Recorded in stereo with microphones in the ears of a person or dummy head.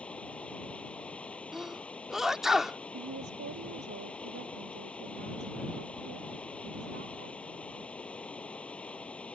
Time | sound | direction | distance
0.0 | running water | 5° left (ahead or behind) | ?
1.5 | a sneeze | 5° right (ahead or behind) | ?
2.9 | a woman speaking | 55° right (ahead or behind) | ?